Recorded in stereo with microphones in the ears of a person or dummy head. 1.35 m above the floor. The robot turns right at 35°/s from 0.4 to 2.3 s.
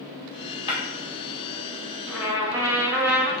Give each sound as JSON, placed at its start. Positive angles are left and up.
{"t": 0.7, "sound": "breaking glass", "side_deg": 25, "distance_m": 1.4}
{"t": 2.1, "sound": "a trumpet", "side_deg": -5, "distance_m": 1.0}